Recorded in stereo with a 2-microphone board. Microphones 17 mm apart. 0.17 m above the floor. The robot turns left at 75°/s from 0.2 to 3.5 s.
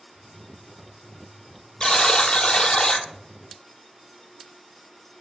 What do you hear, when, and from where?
1.8 s a buzzer: 135° left, 0.8 m; by 3.0 s 40° left, 0.8 m